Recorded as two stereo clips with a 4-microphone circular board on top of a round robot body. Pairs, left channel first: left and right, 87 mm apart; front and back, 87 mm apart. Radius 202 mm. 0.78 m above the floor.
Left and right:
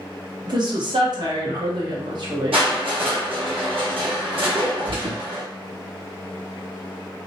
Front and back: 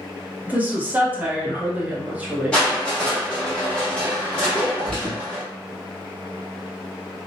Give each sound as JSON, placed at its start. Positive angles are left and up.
{"t": 0.5, "sound": "a woman speaking", "azimuth_deg": -110, "distance_m": 1.2}
{"t": 2.5, "sound": "crushing", "azimuth_deg": -80, "distance_m": 1.2}
{"t": 4.9, "sound": "an alarm", "azimuth_deg": -80, "distance_m": 1.9}